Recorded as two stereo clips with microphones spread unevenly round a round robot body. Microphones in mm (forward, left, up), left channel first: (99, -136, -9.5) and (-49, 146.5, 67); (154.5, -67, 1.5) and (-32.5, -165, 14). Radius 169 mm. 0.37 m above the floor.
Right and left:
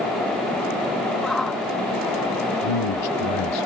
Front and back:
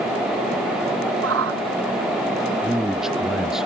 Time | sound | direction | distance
1.2 | a shout | 150° right | ?
2.6 | a man speaking | 65° right | ?